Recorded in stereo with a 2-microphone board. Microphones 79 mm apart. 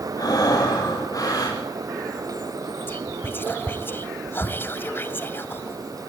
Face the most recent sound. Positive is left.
turn(degrees=25)  # may be behind; listen again after turning